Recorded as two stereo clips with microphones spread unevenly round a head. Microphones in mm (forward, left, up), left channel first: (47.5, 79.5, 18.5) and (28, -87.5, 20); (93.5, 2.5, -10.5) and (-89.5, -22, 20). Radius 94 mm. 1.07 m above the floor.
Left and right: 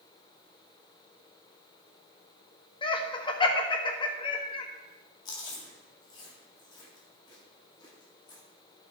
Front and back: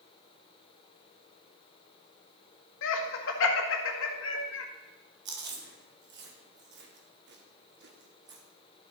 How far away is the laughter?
About 1.6 m.